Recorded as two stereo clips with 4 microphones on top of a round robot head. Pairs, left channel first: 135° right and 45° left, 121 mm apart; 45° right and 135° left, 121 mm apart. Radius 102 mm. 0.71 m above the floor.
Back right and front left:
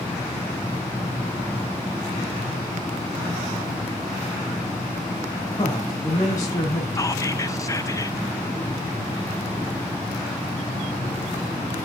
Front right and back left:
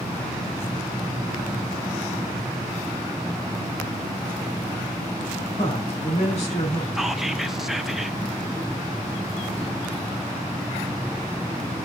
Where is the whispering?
140° right, 1.1 m.